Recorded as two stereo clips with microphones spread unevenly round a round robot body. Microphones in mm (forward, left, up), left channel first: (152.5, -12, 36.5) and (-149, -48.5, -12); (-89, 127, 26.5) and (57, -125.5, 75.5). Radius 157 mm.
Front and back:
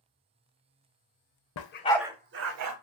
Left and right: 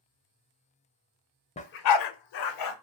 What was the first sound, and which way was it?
A dog barking, 45° left.